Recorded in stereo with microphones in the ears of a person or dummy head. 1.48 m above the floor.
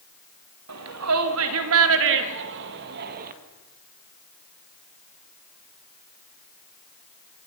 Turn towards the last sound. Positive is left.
turn(degrees=-50)  # may be behind; listen again after turning